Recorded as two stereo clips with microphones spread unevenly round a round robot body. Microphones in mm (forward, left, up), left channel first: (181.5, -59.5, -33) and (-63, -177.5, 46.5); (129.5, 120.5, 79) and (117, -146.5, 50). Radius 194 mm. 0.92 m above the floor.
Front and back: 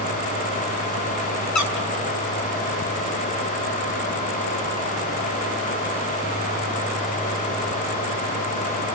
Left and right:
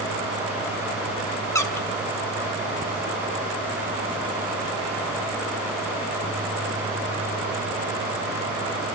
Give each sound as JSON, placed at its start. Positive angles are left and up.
{"t": 1.6, "sound": "a squeak", "azimuth_deg": 10, "distance_m": 3.0}